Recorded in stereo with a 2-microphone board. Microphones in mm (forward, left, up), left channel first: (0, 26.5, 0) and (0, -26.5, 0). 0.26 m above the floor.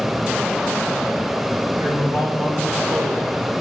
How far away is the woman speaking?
About 5 m.